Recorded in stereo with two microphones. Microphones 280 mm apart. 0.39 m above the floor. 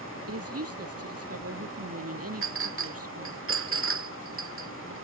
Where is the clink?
45° right (ahead or behind).